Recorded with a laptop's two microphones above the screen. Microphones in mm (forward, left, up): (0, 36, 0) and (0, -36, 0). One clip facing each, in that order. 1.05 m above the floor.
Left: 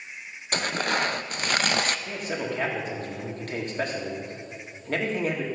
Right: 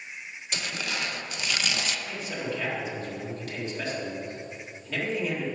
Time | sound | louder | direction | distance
0.5 | tearing paper | left 7 dB | 50° left (ahead or behind) | 0.5 m
2.1 | a man speaking | left 2 dB | 50° left (ahead or behind) | 2 m